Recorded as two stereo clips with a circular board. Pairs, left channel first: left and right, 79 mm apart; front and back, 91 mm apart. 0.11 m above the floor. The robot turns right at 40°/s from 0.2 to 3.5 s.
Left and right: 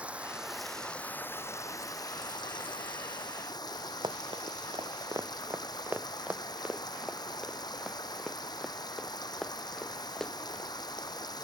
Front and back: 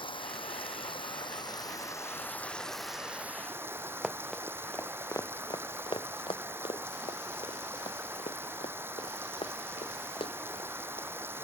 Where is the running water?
15° right; by 11.4 s 115° left.